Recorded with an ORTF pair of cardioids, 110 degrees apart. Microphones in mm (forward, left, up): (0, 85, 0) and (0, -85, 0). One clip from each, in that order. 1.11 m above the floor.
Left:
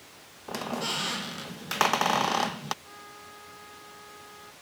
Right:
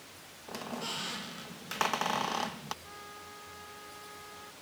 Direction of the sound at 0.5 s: 30° left.